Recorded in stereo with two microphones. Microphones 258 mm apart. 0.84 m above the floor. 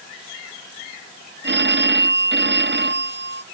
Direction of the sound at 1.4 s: 40° right (ahead or behind).